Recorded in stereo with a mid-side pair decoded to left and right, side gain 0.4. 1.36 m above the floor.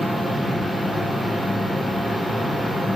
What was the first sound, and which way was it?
A machine running, 5° left.